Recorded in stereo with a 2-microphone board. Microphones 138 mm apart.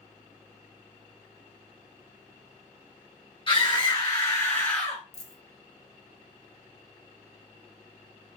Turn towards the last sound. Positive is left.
turn(degrees=55)  # may be behind; listen again after turning